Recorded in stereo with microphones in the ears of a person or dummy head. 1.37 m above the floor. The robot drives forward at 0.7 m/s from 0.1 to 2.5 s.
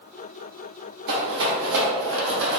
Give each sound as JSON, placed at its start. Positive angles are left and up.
{"t": 1.1, "sound": "a rattle", "side_deg": -60, "distance_m": 1.3}